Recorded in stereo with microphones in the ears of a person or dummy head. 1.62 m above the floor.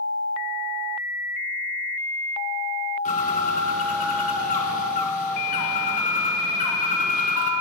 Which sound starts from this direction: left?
A bird, at 3.0 s.